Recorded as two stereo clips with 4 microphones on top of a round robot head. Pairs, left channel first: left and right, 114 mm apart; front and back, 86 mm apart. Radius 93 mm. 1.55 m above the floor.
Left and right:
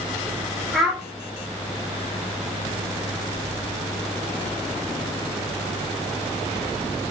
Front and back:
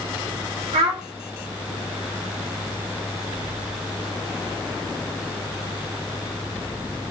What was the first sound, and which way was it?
A child speaking, straight behind.